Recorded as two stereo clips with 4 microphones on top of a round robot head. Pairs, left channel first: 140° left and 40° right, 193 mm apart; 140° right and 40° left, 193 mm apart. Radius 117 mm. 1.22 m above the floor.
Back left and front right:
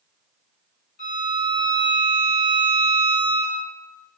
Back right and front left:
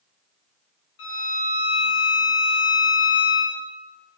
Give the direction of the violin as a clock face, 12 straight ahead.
6 o'clock.